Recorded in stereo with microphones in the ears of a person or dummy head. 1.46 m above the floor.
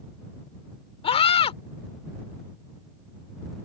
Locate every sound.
1.0 s a scream: 30° left (ahead or behind)